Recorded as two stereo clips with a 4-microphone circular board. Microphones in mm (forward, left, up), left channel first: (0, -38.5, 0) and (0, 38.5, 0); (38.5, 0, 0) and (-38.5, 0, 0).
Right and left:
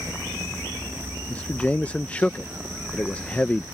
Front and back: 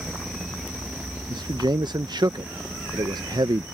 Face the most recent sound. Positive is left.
turn(degrees=-165)